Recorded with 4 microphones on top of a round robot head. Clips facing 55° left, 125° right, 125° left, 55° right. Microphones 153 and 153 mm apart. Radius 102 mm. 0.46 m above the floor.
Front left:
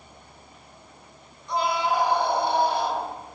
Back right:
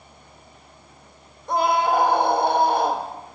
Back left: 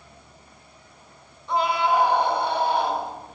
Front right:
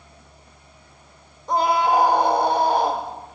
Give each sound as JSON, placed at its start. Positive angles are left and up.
{"t": 1.5, "sound": "a scream", "azimuth_deg": -95, "distance_m": 1.9}